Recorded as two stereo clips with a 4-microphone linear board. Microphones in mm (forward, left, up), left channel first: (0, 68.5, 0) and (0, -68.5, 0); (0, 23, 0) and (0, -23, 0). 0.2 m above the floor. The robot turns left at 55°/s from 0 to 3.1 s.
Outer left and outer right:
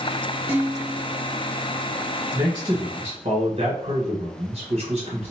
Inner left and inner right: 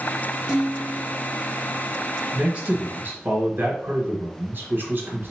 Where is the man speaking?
35° right, 1.5 m; by 5.3 s 80° right, 1.5 m.